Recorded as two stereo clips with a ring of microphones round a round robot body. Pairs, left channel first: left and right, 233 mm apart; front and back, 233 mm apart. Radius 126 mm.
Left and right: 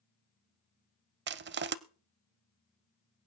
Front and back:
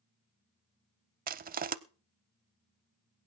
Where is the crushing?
130° right, 0.5 m.